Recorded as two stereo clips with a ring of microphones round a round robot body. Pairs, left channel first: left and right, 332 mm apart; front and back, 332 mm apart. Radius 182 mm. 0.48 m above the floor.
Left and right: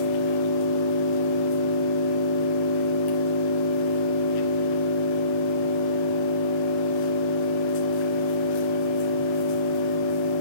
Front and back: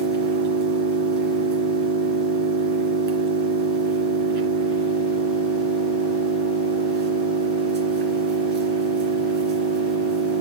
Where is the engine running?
120° left, 2.5 m.